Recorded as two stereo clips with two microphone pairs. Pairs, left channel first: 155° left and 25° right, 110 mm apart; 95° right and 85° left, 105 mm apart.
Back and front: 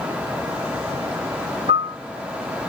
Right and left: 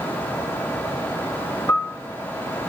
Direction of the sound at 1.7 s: 40° right.